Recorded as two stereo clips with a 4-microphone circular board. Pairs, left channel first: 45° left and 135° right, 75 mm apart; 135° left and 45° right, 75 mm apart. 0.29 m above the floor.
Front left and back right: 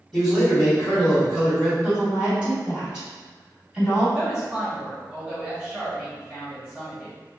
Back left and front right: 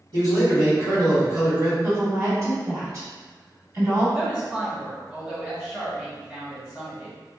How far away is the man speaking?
About 2.0 m.